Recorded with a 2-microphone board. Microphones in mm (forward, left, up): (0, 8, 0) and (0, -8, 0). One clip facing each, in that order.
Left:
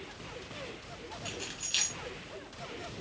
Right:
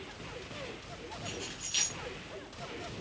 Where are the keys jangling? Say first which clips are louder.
Left 3 dB; 30° left (ahead or behind), 2 m.